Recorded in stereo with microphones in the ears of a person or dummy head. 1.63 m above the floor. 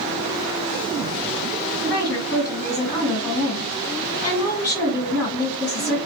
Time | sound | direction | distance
1.8 | a woman speaking | 30° left (ahead or behind) | 1.5 m